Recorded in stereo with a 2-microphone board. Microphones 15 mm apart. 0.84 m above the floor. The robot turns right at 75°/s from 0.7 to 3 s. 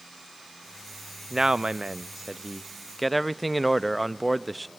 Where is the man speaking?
135° right, 0.5 m; by 4.7 s 5° right, 0.5 m.